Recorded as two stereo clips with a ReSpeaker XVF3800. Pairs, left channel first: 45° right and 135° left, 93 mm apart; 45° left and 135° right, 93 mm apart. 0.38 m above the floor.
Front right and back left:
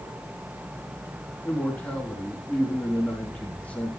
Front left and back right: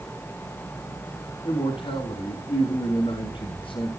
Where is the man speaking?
35° left, 3.5 m.